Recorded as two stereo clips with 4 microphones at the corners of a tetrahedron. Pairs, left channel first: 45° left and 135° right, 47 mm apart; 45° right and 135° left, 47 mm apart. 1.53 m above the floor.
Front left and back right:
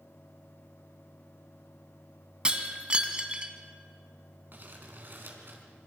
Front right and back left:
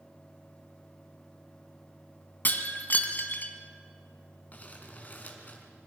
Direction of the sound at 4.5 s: 95° right.